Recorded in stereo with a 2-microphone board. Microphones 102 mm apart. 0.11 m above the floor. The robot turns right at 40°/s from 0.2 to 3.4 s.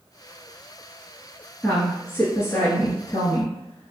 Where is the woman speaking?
20° left, 1.3 m; by 3.9 s 90° left, 1.3 m.